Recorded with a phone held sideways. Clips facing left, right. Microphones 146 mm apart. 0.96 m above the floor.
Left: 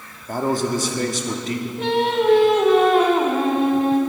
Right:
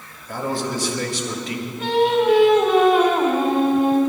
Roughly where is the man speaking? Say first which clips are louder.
Left 4 dB; left.